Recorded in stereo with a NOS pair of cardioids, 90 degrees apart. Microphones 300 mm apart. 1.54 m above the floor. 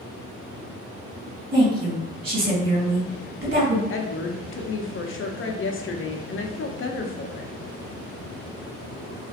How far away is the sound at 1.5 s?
About 1.7 m.